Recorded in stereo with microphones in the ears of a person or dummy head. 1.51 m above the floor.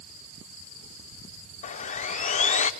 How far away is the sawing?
About 0.7 m.